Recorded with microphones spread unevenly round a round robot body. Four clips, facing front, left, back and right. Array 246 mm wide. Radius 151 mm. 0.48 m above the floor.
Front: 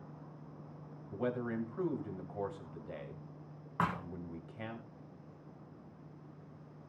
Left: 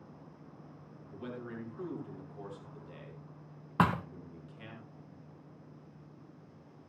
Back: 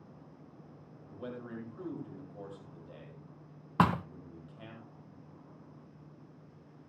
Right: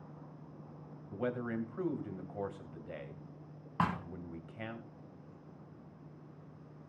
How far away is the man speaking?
About 3 m.